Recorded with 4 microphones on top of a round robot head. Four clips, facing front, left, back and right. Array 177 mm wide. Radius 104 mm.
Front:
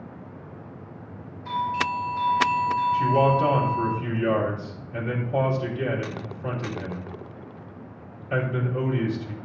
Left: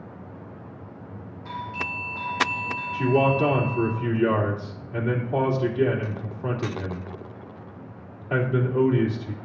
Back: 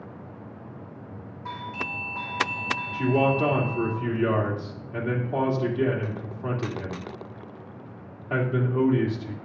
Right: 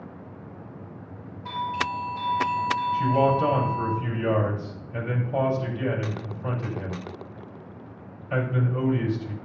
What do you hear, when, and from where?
1.4 s a doorbell: 155° right, 2 m
2.9 s a man speaking: 135° left, 2.5 m